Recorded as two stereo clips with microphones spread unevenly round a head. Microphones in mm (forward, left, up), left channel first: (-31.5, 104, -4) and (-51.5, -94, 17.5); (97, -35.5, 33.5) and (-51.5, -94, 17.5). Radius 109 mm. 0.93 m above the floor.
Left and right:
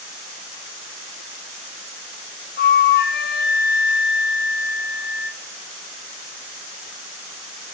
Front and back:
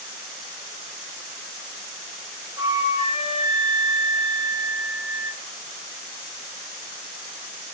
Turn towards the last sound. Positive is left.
turn(degrees=120)